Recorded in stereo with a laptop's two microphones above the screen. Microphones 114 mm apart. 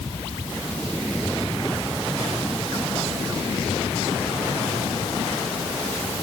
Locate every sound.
Only background noise.